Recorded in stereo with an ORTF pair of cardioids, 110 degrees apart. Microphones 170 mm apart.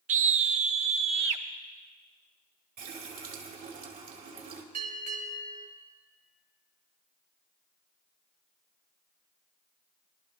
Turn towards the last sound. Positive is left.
turn(degrees=-65)